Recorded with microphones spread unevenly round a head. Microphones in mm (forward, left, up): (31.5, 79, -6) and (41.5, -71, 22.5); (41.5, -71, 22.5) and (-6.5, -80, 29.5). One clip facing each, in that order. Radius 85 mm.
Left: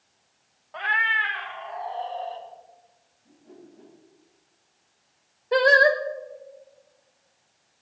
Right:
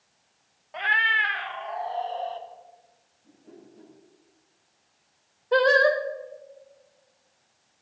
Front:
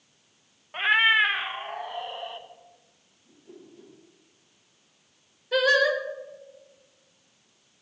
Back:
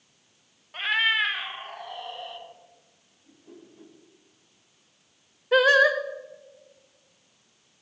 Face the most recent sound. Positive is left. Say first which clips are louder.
# left 1 dB, back 3 dB
turn(degrees=-175)